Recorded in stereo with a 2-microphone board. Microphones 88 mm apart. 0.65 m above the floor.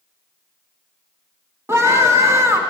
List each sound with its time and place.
1.7 s a scream: 30° right (ahead or behind), 1.2 m